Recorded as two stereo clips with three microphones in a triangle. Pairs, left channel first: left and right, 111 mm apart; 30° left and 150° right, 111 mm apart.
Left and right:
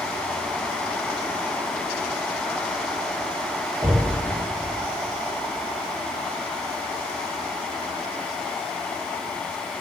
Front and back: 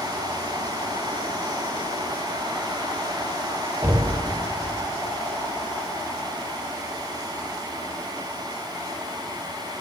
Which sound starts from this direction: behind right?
Knocking, at 3.8 s.